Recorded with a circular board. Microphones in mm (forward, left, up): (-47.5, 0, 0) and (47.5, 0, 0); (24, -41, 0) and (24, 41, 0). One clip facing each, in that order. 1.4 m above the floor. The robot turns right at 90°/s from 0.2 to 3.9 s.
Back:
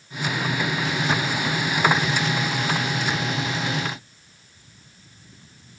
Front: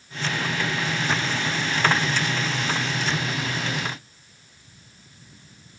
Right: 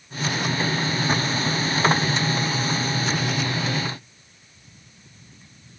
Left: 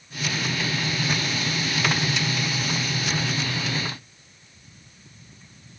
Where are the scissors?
I don't hear scissors.